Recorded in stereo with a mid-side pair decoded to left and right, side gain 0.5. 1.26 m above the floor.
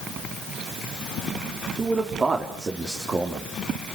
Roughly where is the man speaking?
Ahead right.